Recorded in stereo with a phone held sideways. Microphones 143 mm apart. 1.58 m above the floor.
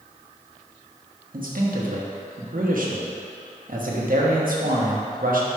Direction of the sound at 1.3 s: 75° right (ahead or behind).